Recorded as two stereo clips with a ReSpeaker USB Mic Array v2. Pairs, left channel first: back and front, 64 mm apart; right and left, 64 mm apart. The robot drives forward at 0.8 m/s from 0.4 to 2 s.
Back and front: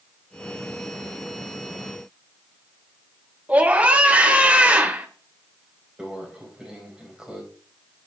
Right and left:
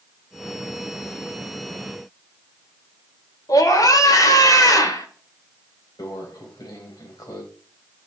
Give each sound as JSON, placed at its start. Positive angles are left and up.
{"t": 3.5, "sound": "a scream", "azimuth_deg": -65, "distance_m": 1.9}
{"t": 6.0, "sound": "a microwave", "azimuth_deg": -80, "distance_m": 3.5}